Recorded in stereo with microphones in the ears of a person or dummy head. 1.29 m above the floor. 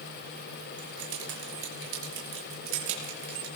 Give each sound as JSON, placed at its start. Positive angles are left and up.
{"t": 0.8, "sound": "keys jangling", "side_deg": -85, "distance_m": 4.5}